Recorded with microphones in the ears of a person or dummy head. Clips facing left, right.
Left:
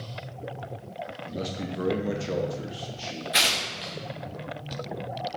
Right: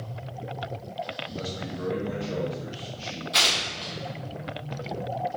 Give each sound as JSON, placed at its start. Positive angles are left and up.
{"t": 1.2, "sound": "a man speaking", "side_deg": 20, "distance_m": 0.6}
{"t": 3.3, "sound": "tearing paper", "side_deg": 25, "distance_m": 0.9}